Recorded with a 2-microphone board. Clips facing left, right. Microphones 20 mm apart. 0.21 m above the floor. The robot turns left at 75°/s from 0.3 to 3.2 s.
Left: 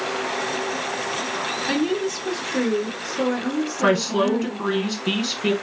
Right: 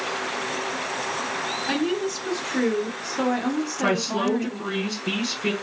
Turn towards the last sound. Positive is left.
turn(degrees=30)  # may be behind; listen again after turning